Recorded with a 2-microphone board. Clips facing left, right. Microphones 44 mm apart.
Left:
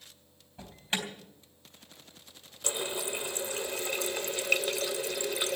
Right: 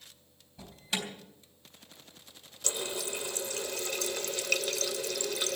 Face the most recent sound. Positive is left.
turn(degrees=25)  # may be behind; listen again after turning